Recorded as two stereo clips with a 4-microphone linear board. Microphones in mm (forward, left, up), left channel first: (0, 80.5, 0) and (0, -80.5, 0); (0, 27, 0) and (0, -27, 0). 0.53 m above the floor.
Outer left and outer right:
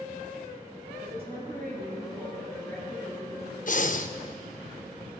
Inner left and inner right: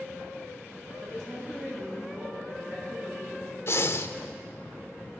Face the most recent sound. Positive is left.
turn(degrees=55)  # may be behind; listen again after turning